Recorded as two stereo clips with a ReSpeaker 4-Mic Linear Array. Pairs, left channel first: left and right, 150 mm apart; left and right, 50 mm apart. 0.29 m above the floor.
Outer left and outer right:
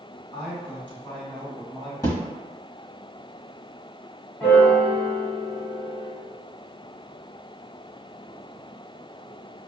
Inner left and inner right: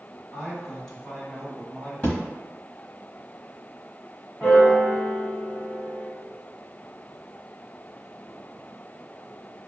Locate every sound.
0.3 s a man speaking: 10° left (ahead or behind), 1.5 m
2.0 s a thud: 25° left (ahead or behind), 1.2 m
4.4 s a piano: 10° left (ahead or behind), 1.8 m